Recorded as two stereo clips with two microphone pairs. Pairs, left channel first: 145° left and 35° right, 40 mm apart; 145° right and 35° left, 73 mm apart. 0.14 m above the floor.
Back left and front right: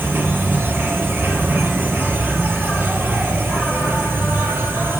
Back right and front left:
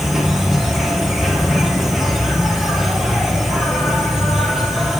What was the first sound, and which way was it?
An insect, 55° right.